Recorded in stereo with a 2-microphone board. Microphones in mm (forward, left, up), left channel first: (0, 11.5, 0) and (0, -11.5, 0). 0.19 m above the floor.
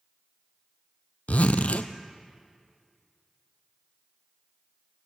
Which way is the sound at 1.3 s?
80° left.